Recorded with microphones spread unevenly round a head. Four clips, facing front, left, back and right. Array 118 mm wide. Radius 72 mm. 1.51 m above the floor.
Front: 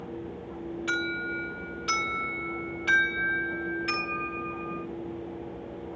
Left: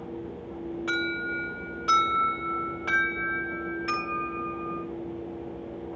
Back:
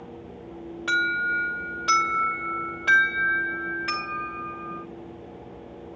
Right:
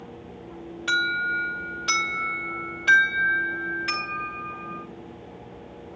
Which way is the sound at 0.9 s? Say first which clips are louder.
Right 6 dB, back 8 dB; 160° left.